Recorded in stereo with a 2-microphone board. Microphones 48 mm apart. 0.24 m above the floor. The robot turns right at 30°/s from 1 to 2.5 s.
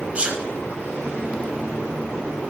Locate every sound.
0.1 s a sneeze: 25° right (ahead or behind), 1.1 m